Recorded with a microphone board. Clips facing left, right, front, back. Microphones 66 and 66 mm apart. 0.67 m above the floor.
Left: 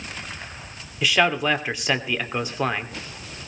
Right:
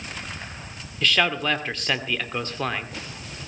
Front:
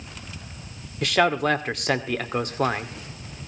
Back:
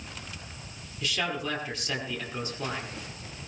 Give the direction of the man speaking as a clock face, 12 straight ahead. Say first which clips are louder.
Left 2 dB, front 11 dB; 12 o'clock.